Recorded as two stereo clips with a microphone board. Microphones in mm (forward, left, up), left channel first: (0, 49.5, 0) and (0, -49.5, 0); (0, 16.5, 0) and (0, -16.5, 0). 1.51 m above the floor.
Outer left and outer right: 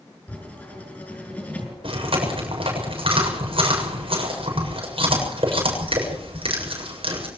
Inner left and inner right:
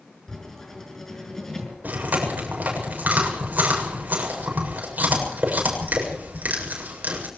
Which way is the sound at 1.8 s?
65° right (ahead or behind).